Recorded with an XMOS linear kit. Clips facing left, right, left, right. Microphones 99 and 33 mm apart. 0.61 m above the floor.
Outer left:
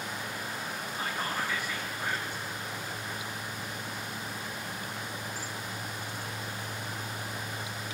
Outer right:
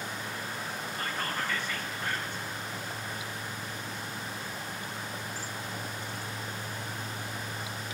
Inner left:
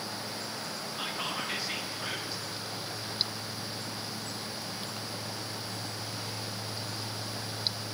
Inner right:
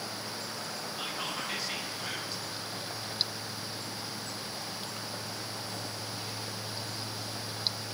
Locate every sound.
1.0 s whispering: 10° left (ahead or behind), 0.8 m